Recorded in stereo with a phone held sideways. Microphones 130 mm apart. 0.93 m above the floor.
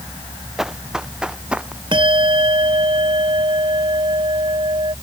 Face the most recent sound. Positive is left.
turn(degrees=-40)  # may be behind; listen again after turning